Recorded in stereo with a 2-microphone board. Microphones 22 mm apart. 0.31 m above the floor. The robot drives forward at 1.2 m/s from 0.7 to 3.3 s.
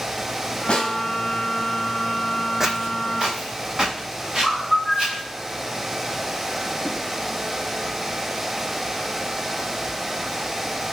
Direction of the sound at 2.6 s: 20° right (ahead or behind).